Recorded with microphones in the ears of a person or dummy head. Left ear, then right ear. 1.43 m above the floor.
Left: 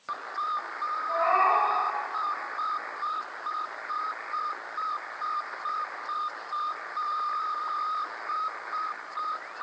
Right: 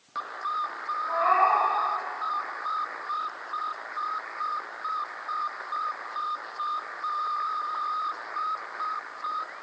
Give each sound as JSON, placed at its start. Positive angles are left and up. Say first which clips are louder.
{"t": 1.1, "sound": "a cat meowing", "louder": "right 1 dB", "side_deg": -60, "distance_m": 1.9}